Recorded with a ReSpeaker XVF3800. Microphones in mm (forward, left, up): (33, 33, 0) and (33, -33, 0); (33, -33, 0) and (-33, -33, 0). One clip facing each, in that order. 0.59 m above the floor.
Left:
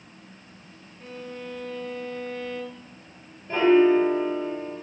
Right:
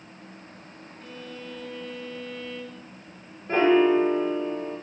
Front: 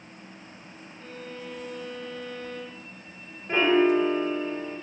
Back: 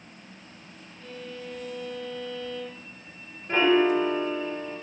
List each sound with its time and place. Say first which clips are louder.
1.0 s a violin: left 3 dB, back 1 dB; 40° left, 1.6 m
3.5 s a piano: left 1 dB, even; 80° right, 1.7 m